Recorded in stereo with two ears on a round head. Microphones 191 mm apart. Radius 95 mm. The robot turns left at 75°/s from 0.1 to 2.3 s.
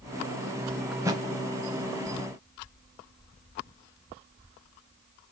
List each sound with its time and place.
0.9 s a thud: centre (ahead or behind), 0.7 m; by 1.2 s 25° right (ahead or behind), 0.7 m